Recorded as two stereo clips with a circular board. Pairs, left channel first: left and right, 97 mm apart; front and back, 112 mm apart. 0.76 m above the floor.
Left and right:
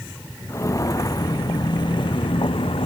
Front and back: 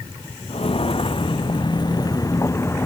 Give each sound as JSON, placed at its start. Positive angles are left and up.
{"t": 0.5, "sound": "footsteps", "azimuth_deg": 30}